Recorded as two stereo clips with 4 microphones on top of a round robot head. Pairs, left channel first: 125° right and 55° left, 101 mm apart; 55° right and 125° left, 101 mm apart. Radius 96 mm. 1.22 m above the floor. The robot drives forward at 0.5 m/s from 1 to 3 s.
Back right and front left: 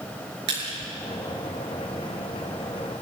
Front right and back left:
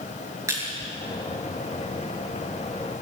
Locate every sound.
0.5 s crushing: 65° left, 7 m